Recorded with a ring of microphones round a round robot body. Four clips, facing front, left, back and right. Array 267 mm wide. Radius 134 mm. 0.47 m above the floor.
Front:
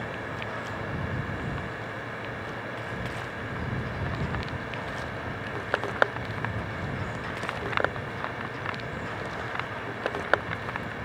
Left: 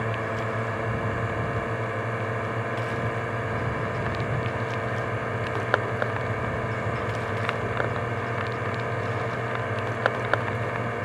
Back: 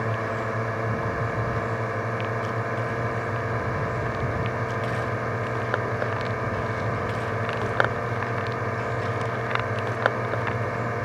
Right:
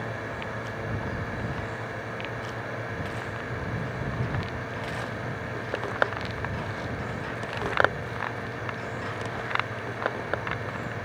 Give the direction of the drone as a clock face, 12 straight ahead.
7 o'clock.